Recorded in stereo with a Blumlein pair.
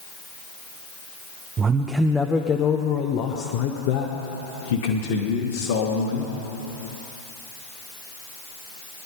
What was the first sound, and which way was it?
A man speaking, 25° right.